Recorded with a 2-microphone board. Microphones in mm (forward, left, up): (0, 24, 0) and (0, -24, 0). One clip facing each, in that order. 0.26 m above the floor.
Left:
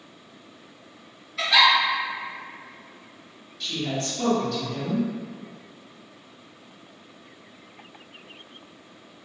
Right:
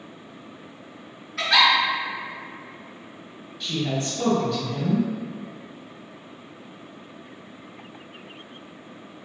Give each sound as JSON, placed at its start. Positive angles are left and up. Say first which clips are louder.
{"t": 1.4, "sound": "a giggle", "louder": "even", "side_deg": -60, "distance_m": 1.8}
{"t": 3.6, "sound": "a woman speaking", "louder": "right 2 dB", "side_deg": -20, "distance_m": 1.9}